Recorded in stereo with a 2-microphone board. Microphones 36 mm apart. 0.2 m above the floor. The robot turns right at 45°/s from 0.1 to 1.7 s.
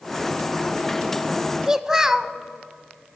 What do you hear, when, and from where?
1.7 s a child speaking: 15° right (ahead or behind), 0.6 m